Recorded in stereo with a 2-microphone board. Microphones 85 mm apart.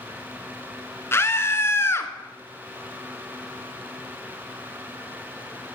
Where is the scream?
30° left (ahead or behind), 1.3 m.